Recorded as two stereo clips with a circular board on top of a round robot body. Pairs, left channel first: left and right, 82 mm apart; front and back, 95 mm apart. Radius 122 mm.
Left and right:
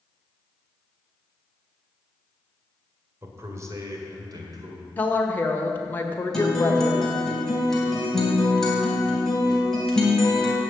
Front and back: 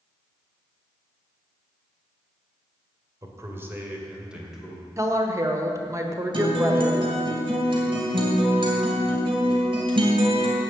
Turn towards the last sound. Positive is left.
turn(degrees=170)